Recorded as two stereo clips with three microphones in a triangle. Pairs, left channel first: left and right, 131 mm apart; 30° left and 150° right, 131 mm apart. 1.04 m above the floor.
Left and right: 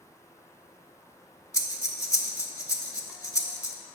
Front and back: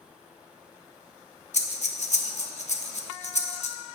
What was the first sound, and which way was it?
Breathing, 30° left.